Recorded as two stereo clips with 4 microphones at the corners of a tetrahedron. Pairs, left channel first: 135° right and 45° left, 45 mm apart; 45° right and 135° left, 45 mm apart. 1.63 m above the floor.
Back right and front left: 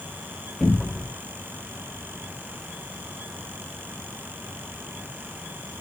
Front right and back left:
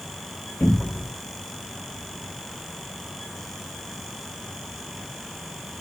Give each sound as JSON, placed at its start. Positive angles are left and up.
{"t": 0.6, "sound": "a cupboard door", "azimuth_deg": -35, "distance_m": 1.4}